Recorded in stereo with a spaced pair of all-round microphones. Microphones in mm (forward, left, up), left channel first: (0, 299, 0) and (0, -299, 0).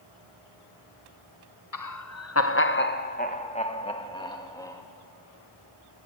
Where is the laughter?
35° left (ahead or behind), 0.7 m; by 4.8 s 5° left (ahead or behind), 2 m.